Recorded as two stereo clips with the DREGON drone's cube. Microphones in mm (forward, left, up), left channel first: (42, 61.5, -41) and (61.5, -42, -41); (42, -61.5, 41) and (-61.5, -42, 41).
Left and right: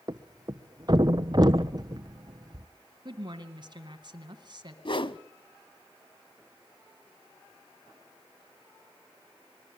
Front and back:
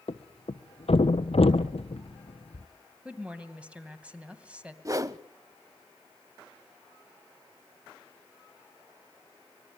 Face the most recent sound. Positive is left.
turn(degrees=120)